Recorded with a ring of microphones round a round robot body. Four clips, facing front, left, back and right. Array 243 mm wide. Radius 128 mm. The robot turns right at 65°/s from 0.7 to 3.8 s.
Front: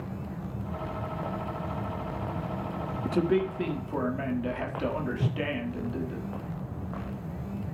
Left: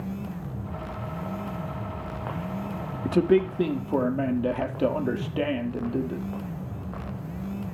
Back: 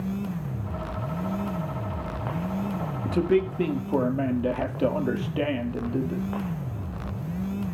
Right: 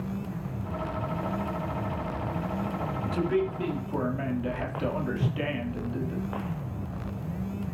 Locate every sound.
3.0 s a man speaking: 85° left, 1.5 m; by 6.2 s 135° left, 1.5 m
5.2 s a whoosh: 45° right, 0.6 m